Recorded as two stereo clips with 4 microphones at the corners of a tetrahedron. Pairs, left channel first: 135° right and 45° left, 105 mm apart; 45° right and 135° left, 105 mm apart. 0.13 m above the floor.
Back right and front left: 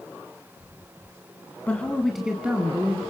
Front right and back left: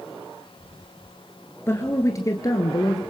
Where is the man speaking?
75° right, 1.8 m; by 3.0 s 15° right, 2.5 m.